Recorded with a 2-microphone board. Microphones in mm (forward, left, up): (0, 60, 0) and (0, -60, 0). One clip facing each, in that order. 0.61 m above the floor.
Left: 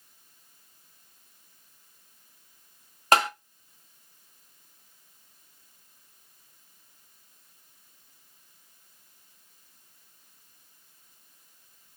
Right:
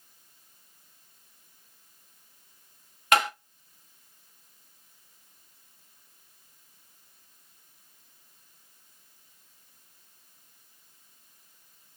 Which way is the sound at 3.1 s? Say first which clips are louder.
Left 2 dB; 35° left (ahead or behind).